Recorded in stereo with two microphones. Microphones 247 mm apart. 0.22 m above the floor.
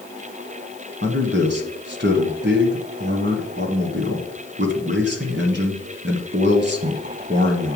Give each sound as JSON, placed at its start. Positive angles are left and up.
{"t": 1.0, "sound": "a man speaking", "side_deg": -45, "distance_m": 1.7}